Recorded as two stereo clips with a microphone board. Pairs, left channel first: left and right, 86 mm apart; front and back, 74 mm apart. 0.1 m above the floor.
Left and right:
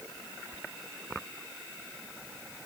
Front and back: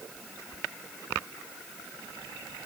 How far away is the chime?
I don't hear a chime.